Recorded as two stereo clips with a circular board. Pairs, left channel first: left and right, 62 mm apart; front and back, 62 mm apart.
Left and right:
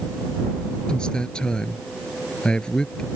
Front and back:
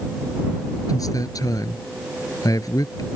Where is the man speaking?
15° left.